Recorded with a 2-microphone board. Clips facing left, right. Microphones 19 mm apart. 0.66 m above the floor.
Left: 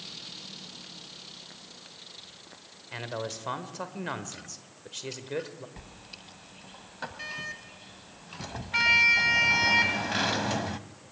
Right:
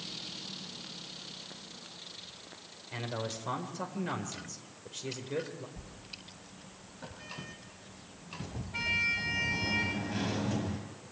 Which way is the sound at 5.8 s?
60° left (ahead or behind).